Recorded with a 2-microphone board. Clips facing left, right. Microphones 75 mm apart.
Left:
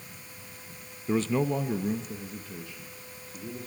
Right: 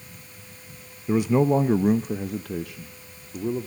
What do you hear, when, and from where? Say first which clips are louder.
1.1 s a man speaking: right 6 dB; 5° right (ahead or behind), 0.5 m; by 3.7 s 75° right (ahead or behind), 1.6 m